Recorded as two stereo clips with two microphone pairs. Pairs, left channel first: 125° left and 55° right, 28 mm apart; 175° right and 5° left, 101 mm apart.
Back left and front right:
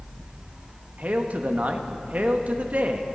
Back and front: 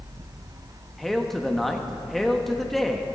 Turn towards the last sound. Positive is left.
turn(degrees=-85)